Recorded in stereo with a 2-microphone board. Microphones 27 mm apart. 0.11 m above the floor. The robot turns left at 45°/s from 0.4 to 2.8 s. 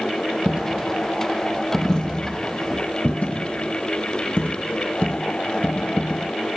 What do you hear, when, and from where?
0.5 s a dropped coin: 45° right (ahead or behind), 0.6 m; by 6.3 s 55° left (ahead or behind), 0.6 m